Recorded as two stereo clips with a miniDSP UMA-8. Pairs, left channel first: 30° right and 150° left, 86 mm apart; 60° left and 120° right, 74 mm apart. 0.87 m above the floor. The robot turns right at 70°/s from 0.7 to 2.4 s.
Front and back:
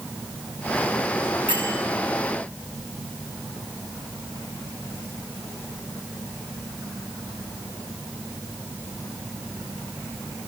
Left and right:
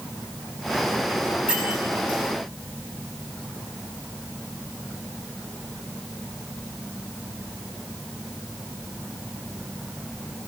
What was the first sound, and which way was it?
A bell, 160° left.